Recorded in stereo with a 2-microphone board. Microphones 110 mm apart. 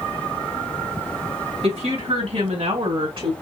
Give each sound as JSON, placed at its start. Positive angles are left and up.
{"t": 1.6, "sound": "a woman speaking", "side_deg": -70, "distance_m": 2.5}